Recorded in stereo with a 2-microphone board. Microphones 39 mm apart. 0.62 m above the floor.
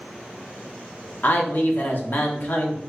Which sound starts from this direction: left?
A man speaking, at 1.2 s.